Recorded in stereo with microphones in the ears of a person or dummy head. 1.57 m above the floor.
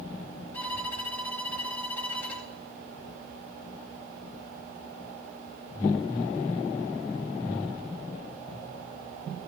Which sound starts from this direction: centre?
A violin, at 0.5 s.